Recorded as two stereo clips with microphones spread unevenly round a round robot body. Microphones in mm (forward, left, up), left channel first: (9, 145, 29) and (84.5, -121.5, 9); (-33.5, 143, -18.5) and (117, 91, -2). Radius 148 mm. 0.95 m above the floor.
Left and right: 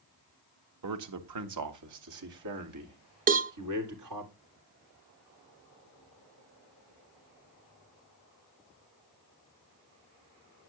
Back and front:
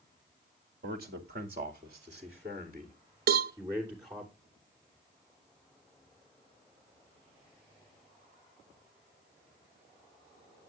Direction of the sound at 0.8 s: 70° right.